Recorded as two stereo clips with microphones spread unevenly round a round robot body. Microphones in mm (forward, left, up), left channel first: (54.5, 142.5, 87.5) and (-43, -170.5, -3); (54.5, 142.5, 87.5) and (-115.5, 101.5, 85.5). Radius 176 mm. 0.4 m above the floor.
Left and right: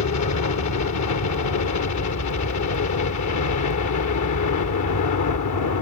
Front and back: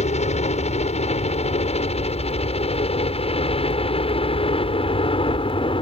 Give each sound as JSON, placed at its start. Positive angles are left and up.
{"t": 0.0, "sound": "a helicopter", "azimuth_deg": 40}